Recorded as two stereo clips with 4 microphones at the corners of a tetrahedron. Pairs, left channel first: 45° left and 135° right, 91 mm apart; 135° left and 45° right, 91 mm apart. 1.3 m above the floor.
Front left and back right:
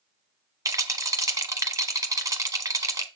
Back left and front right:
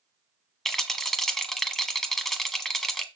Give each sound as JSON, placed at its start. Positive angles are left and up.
{"t": 0.7, "sound": "a rattle", "azimuth_deg": -145, "distance_m": 1.2}